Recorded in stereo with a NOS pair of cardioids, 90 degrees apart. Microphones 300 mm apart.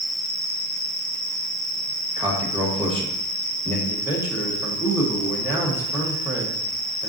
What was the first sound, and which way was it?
An insect, 30° left.